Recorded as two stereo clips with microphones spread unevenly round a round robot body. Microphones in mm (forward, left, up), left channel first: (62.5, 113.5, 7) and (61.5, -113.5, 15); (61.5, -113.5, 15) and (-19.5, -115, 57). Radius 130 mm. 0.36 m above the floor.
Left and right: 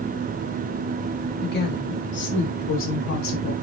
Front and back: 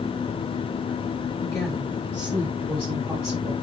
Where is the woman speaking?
50° left, 3.5 m; by 3.5 s 80° left, 3.5 m.